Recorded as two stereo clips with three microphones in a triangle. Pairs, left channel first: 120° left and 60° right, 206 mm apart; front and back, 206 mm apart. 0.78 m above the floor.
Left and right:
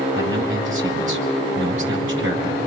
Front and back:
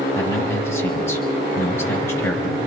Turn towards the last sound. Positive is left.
turn(degrees=-80)